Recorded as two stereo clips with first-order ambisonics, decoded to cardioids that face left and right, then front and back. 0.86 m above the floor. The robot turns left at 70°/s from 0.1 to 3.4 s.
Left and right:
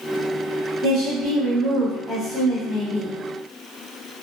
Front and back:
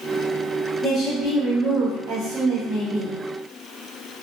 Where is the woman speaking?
100° right, 1.0 m; by 3.1 s 100° left, 1.0 m.